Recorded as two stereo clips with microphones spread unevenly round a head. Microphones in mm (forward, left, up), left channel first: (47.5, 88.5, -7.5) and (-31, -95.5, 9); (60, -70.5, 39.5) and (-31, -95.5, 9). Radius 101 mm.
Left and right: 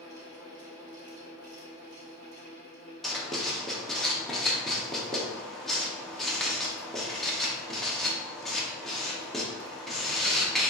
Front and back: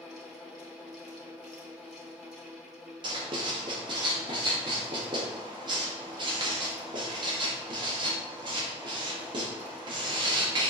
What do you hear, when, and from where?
0.0 s a fan: 65° right, 2 m
3.0 s writing: 165° left, 0.7 m